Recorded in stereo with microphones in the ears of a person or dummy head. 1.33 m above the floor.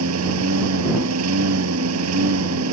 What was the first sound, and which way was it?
A lawn mower, 80° right.